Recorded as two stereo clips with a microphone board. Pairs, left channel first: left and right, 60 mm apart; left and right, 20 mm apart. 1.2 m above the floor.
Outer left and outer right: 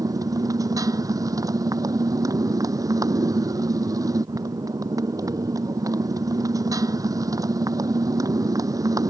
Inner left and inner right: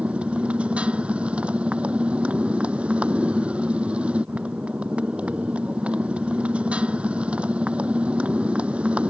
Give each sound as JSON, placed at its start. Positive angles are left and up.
{"t": 0.0, "sound": "a motorcycle", "side_deg": -80}